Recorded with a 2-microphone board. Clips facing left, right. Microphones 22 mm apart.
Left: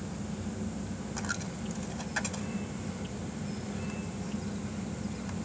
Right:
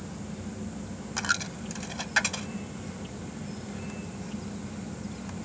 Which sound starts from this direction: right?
A dropped coin, at 1.2 s.